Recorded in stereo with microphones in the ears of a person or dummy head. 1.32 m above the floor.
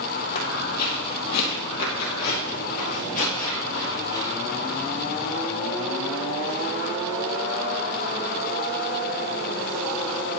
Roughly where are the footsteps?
Left.